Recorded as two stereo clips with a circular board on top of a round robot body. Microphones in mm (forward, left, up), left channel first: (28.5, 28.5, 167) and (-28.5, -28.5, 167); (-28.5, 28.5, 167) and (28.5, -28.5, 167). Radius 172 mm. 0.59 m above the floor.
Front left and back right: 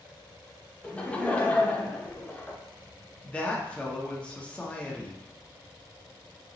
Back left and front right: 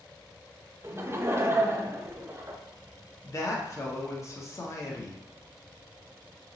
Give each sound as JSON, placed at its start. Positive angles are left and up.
{"t": 0.8, "sound": "laughter", "azimuth_deg": -20, "distance_m": 0.7}
{"t": 3.2, "sound": "a woman speaking", "azimuth_deg": 115, "distance_m": 1.0}